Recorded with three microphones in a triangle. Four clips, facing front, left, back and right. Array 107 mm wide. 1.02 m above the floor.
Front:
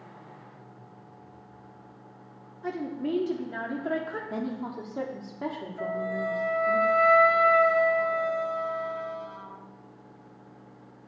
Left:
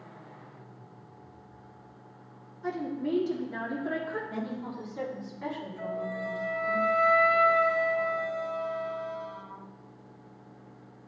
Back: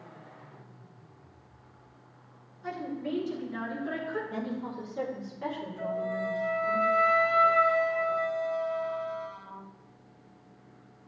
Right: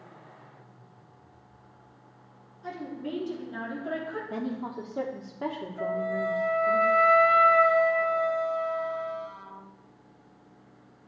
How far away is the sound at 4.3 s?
About 2.5 m.